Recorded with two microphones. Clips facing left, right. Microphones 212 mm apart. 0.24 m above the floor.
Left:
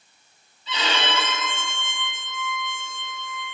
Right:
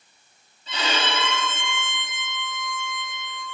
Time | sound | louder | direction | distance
0.7 | a violin | even | 50° right (ahead or behind) | 1.6 m